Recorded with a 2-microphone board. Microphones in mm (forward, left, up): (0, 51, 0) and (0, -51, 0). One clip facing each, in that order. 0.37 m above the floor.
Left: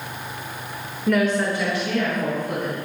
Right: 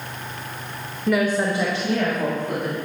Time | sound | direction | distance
1.1 | a woman speaking | centre (ahead or behind) | 1.1 m